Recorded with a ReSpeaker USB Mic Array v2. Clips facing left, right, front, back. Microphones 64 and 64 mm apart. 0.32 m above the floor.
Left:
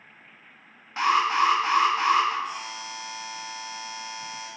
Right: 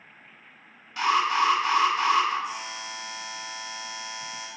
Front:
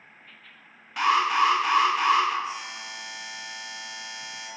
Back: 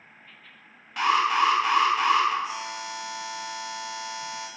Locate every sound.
1.0 s an alarm: 85° left, 0.6 m
2.4 s a buzzer: 170° right, 0.8 m